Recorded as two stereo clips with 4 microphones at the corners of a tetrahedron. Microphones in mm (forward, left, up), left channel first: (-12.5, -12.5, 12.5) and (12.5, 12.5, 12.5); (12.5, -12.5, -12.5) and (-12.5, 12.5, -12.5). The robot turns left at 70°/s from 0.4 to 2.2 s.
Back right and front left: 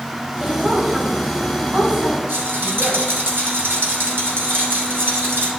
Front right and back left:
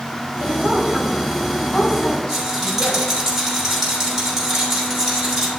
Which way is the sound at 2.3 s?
55° left.